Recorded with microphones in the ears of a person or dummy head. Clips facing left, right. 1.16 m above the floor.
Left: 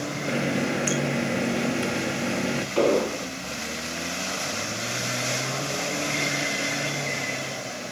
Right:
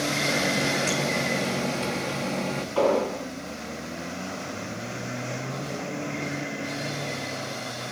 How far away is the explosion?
About 4 m.